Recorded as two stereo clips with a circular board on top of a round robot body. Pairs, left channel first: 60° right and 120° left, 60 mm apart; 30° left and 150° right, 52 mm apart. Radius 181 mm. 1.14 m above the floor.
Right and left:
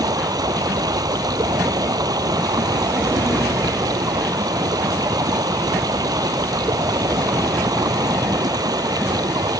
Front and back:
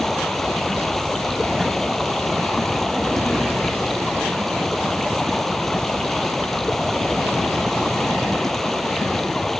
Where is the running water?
115° left.